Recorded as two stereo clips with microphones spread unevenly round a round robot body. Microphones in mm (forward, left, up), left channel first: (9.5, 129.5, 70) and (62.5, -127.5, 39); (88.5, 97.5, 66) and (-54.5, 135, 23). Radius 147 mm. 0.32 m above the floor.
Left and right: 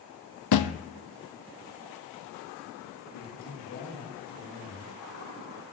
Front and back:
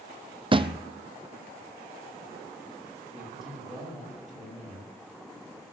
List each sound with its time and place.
0.5 s a thud: 100° left, 0.8 m
3.1 s a man speaking: 75° left, 8.5 m